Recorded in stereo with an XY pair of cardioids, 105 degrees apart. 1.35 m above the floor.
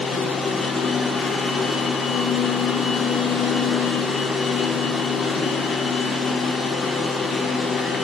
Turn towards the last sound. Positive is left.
turn(degrees=45)